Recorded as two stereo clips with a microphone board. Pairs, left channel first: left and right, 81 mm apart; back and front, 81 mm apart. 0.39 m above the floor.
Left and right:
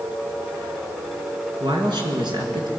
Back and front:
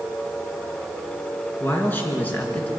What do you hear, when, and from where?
1.6 s a man speaking: 115° right, 4 m; by 2.7 s 110° right, 4.5 m